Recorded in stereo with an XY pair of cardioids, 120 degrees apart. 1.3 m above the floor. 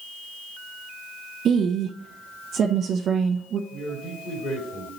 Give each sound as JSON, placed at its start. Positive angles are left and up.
{"t": 1.4, "sound": "a woman speaking", "azimuth_deg": -55, "distance_m": 0.9}
{"t": 3.7, "sound": "a man speaking", "azimuth_deg": 60, "distance_m": 3.5}